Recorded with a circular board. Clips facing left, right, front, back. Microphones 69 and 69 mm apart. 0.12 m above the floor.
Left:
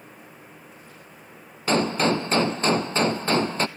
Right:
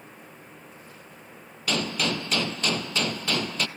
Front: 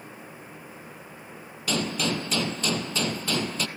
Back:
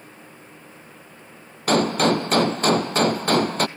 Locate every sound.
1.7 s a gunshot: 145° left, 0.8 m